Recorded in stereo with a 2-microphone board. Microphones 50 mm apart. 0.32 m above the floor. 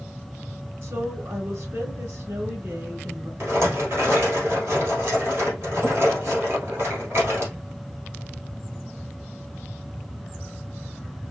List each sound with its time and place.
0.8 s a woman speaking: 50° right (ahead or behind), 3.5 m
3.4 s a rattle: 55° right (ahead or behind), 3 m